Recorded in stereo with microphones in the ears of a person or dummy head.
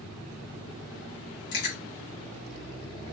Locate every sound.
1.5 s chewing: 60° left (ahead or behind), 1.9 m